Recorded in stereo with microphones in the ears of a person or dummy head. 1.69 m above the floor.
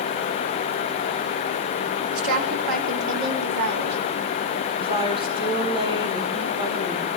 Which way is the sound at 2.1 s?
80° right.